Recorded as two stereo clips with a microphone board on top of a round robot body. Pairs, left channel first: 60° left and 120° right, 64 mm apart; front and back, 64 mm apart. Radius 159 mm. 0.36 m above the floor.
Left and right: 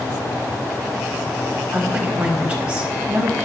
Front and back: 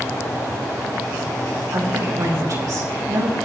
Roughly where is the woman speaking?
Behind.